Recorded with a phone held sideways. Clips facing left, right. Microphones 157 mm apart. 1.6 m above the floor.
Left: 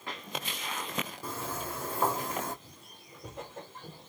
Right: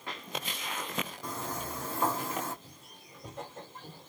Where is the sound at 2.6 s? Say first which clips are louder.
Even; 5° right (ahead or behind), 3 m; by 4.1 s 20° left (ahead or behind), 3.5 m.